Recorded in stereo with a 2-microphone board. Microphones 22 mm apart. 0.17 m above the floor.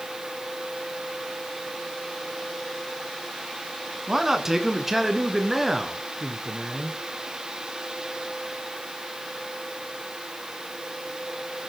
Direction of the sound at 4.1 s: 25° right (ahead or behind).